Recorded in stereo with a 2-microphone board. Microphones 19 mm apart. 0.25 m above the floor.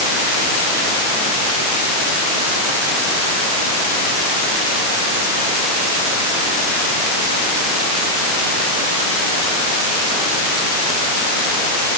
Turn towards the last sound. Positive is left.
No sound to turn to.